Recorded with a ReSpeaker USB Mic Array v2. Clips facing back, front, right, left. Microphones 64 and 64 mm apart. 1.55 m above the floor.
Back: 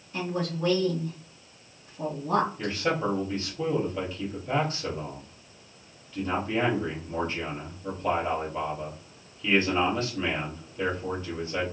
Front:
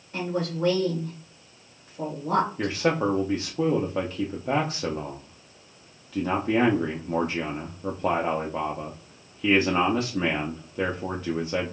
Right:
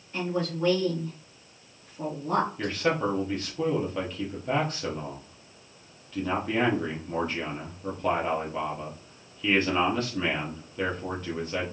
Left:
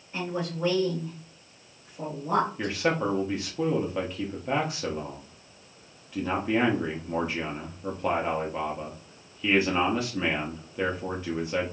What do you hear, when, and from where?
0.1 s a woman speaking: 15° left, 1.4 m
2.6 s a man speaking: 10° left, 0.6 m